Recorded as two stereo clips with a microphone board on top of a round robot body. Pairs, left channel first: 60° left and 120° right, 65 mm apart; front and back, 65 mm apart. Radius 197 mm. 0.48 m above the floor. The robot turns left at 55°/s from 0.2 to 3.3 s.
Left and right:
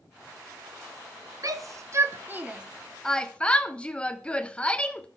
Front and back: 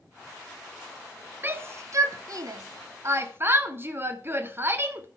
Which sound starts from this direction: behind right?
A shout, at 1.4 s.